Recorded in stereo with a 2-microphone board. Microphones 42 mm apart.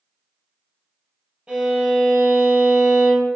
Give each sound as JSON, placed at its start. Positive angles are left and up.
{"t": 1.5, "sound": "a violin", "side_deg": -10, "distance_m": 2.5}